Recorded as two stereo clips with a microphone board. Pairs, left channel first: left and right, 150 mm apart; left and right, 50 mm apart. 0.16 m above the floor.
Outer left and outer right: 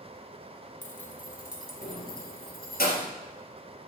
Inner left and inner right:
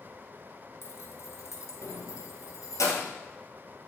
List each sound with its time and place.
0.8 s keys jangling: 55° left (ahead or behind), 1.5 m; by 3.1 s 70° left (ahead or behind), 2.5 m